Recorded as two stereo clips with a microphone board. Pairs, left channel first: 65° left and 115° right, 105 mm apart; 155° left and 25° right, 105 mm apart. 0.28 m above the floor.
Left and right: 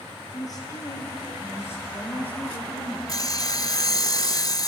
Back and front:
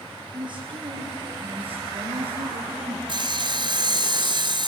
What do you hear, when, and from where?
0.3 s a woman speaking: 15° left, 6 m; by 3.0 s 10° right, 6 m
3.1 s sawing: 15° left, 0.7 m